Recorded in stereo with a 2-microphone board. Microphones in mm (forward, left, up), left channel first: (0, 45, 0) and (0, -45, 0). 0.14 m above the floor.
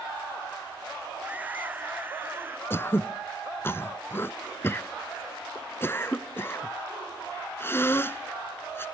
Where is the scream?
15° right (ahead or behind); by 2.6 s 25° right (ahead or behind).